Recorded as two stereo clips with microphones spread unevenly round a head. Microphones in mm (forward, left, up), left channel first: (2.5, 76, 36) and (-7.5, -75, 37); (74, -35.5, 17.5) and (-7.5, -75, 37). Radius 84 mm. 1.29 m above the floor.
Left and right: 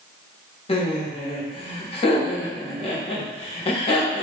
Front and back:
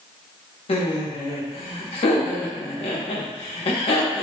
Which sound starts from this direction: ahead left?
Laughter, at 0.7 s.